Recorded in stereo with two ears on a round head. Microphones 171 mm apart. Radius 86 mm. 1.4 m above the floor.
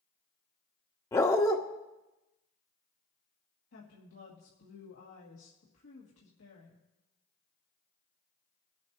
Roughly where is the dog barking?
Centre.